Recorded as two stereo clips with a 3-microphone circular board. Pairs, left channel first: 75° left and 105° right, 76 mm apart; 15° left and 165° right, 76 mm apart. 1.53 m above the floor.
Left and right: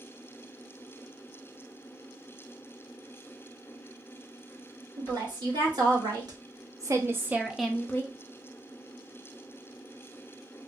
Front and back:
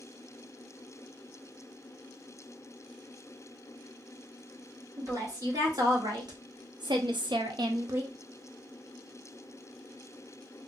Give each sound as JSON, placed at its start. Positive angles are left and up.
{"t": 5.0, "sound": "a woman speaking", "azimuth_deg": -125, "distance_m": 1.6}